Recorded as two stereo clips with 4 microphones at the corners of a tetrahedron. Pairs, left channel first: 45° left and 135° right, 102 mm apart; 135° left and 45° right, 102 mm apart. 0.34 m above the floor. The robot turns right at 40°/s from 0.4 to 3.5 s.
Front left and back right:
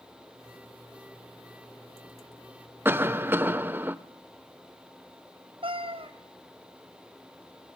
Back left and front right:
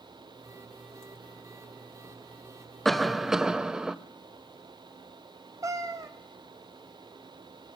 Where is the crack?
No crack in this recording.